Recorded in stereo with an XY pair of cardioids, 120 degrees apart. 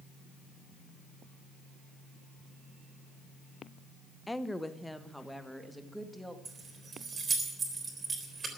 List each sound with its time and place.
4.3 s a woman speaking: 10° left, 0.8 m; by 6.3 s 5° right, 2 m
6.5 s keys jangling: 35° right, 3.5 m